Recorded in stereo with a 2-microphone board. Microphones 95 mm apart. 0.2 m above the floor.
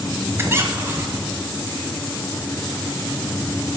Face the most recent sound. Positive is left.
turn(degrees=-25)  # may be behind; listen again after turning